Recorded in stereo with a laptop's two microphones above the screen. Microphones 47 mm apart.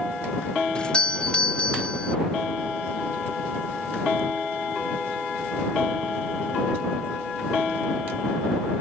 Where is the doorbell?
20° left (ahead or behind).